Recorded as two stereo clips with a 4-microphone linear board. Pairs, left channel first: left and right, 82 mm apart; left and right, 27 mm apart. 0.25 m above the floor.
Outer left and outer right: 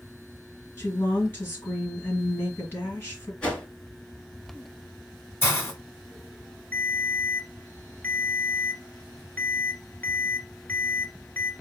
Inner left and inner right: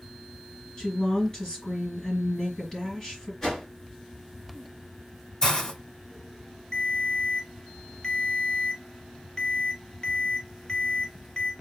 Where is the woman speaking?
25° left (ahead or behind), 3 m.